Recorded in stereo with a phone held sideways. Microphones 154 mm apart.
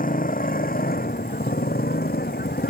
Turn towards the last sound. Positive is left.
turn(degrees=85)